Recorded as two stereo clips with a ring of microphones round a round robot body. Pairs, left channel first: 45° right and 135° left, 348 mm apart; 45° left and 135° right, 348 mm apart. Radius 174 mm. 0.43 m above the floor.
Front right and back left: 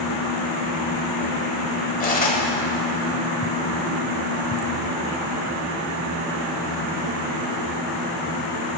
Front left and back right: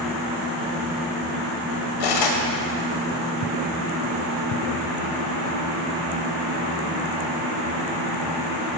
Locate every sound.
2.0 s cutlery clinking: 20° left, 1.1 m